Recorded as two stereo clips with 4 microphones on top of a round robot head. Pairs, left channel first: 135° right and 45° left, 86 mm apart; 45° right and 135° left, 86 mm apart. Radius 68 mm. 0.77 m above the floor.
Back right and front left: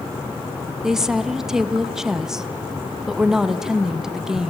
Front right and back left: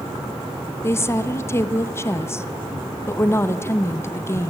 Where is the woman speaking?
35° right, 1.1 m.